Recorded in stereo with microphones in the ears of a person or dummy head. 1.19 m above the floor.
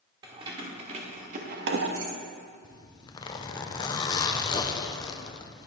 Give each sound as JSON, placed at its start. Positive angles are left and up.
{"t": 0.2, "sound": "keys jangling", "side_deg": -25, "distance_m": 2.0}
{"t": 2.6, "sound": "a zipper", "side_deg": 20, "distance_m": 0.6}